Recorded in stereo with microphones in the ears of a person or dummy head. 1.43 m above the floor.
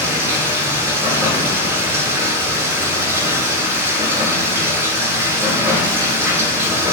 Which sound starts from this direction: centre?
Running water, at 0.0 s.